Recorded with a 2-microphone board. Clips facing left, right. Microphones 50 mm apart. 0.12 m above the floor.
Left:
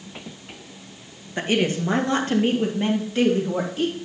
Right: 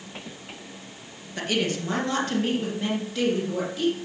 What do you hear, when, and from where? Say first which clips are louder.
1.4 s a woman speaking: left 4 dB; 30° left (ahead or behind), 1.9 m; by 4.0 s 35° left (ahead or behind), 4 m